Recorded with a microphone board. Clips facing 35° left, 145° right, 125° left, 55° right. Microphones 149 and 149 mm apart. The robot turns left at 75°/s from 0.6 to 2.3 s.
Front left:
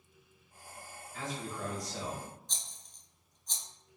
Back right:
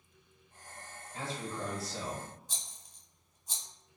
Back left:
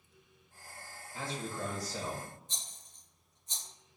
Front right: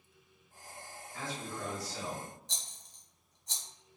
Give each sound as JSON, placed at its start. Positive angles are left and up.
{"t": 1.1, "sound": "a man speaking", "azimuth_deg": 180, "distance_m": 1.1}
{"t": 2.5, "sound": "a rattle", "azimuth_deg": -65, "distance_m": 0.6}